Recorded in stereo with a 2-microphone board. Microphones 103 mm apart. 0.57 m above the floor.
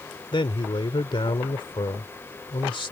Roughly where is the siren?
I don't hear a siren.